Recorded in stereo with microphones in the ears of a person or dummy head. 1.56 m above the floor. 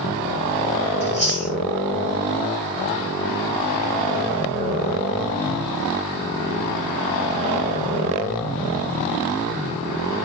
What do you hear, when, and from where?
1.0 s chewing: 40° right (ahead or behind), 0.8 m